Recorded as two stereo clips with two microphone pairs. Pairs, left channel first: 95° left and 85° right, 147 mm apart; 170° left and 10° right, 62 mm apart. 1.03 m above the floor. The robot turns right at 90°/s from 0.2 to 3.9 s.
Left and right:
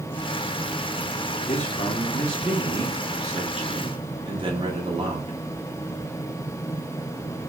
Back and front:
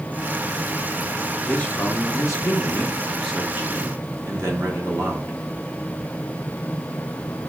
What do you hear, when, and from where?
1.4 s a man speaking: 95° left, 1.2 m; by 5.4 s 45° right, 1.2 m